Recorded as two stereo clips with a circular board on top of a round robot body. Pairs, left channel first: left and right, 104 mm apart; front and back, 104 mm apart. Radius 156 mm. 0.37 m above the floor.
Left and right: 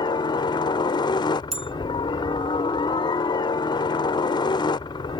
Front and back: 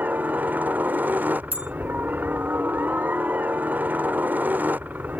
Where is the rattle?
I don't hear a rattle.